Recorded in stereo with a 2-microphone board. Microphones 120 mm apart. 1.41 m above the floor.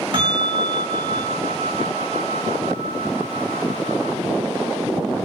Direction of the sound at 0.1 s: 45° right (ahead or behind).